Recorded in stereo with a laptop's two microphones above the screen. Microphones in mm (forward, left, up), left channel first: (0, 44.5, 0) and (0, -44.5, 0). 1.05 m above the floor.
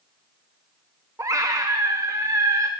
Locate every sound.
1.2 s a scream: 40° right (ahead or behind), 0.6 m